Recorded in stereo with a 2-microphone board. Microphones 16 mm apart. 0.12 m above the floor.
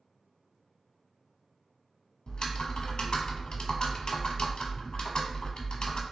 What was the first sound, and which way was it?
Typing on a keyboard, 65° left (ahead or behind).